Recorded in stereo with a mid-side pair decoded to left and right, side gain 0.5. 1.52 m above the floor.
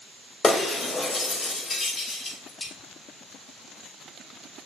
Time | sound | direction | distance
0.4 | breaking glass | 25° left | 4 m